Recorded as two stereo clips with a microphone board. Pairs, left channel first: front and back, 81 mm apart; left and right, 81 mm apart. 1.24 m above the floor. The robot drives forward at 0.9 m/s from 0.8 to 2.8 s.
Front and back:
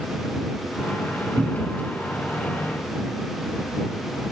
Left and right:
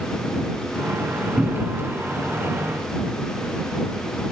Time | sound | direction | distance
1.4 | a cupboard door | 175° right | 0.9 m